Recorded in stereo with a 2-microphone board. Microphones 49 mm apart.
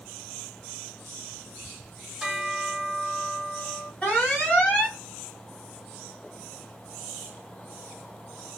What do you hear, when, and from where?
2.2 s a bell: centre (ahead or behind), 1.3 m
4.0 s an alarm: 15° left (ahead or behind), 2 m